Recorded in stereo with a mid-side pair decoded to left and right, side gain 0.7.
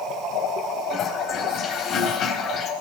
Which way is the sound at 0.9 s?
45° left.